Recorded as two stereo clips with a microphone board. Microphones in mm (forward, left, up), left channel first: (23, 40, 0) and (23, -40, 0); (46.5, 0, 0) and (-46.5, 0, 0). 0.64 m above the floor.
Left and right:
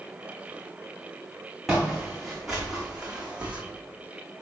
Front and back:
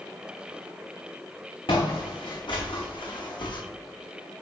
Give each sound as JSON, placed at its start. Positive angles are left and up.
{"t": 1.7, "sound": "footsteps", "azimuth_deg": 0, "distance_m": 2.5}